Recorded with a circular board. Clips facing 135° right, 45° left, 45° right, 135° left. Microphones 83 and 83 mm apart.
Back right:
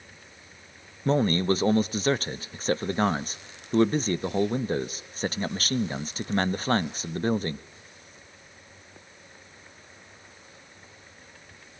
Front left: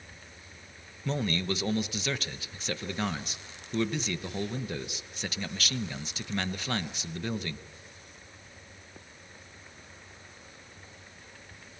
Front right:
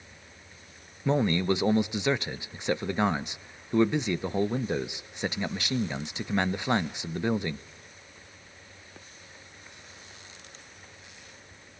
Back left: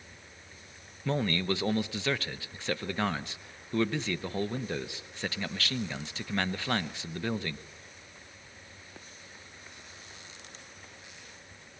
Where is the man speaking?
105° right, 0.7 m.